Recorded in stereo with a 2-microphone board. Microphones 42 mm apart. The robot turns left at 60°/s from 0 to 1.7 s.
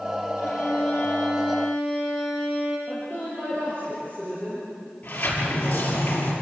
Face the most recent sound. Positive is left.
turn(degrees=35)  # may be behind; listen again after turning